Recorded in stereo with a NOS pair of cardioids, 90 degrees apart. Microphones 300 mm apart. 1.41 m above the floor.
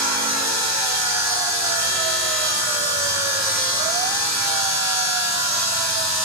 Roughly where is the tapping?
No tapping in this recording.